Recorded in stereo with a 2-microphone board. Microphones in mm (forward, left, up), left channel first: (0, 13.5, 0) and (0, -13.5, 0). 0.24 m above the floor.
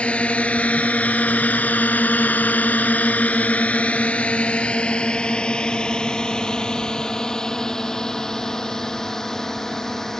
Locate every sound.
0.0 s a drone: 45° left (ahead or behind); by 10.2 s 15° left (ahead or behind)